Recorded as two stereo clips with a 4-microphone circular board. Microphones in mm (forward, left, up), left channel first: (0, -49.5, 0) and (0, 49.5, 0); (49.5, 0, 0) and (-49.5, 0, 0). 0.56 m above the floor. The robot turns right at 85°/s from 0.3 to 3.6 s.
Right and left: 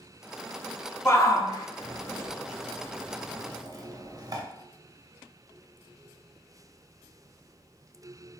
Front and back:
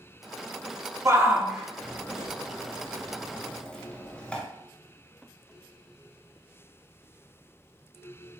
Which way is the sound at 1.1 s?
145° right.